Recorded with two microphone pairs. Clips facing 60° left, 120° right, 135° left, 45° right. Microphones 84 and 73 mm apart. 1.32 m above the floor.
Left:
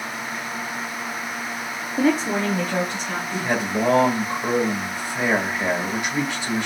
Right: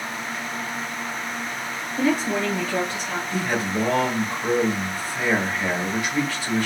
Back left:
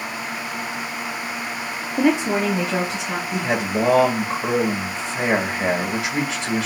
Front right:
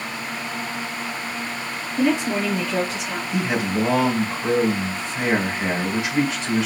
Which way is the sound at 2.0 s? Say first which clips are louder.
Left 2 dB, back left 2 dB; 120° left.